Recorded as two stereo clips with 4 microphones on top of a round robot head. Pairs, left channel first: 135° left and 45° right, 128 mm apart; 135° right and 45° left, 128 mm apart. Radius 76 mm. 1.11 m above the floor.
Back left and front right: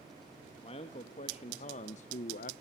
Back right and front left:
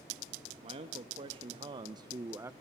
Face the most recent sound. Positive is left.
turn(degrees=115)